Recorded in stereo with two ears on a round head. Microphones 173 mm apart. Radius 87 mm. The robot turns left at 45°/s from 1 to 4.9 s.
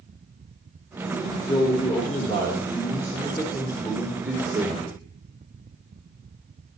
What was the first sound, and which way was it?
A man speaking, 15° left (ahead or behind).